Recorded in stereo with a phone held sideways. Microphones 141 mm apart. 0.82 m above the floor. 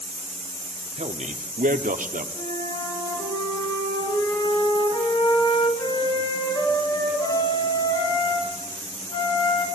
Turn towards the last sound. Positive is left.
turn(degrees=25)  # may be behind; listen again after turning